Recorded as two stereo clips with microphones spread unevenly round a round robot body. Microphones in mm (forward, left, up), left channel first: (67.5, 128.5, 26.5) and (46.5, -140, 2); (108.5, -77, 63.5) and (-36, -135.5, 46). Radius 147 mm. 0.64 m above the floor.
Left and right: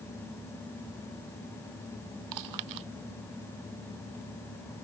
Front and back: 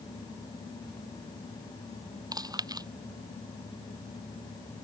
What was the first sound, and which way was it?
Chewing, 90° right.